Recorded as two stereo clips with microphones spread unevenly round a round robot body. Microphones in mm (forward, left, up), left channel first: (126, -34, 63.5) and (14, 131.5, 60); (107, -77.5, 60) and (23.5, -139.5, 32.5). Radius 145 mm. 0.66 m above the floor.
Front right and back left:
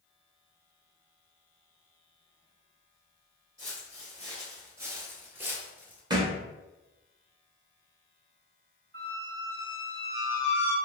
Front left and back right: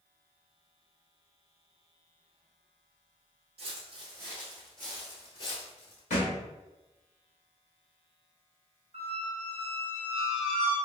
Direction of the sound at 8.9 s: 165° left.